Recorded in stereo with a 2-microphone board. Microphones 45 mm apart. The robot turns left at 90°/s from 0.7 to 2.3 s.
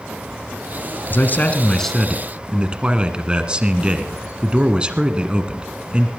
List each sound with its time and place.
1.1 s a man speaking: 80° left, 1.5 m; by 6.1 s 30° right, 1.5 m